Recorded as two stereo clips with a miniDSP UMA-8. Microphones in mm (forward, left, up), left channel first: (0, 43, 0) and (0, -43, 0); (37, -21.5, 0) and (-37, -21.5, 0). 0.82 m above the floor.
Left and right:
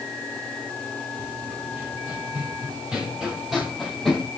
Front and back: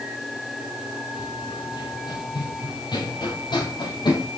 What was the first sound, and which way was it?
Running footsteps, 20° right.